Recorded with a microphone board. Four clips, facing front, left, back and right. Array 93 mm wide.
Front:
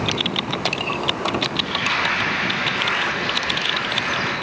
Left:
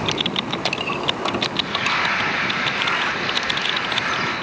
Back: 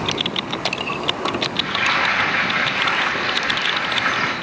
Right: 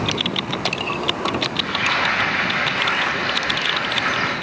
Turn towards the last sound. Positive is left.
turn(degrees=-155)